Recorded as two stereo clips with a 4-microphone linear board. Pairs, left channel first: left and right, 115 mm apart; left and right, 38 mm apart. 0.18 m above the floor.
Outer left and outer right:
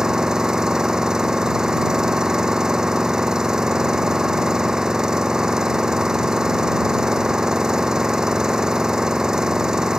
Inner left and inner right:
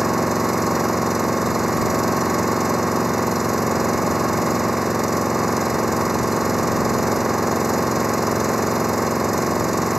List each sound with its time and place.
0.0 s an engine running: 5° right (ahead or behind)